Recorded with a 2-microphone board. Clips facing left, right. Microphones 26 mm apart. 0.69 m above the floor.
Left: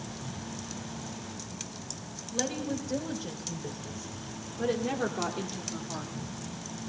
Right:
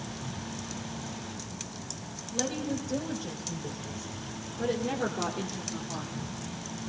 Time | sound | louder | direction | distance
2.3 | a woman speaking | even | 35° left (ahead or behind) | 3.5 m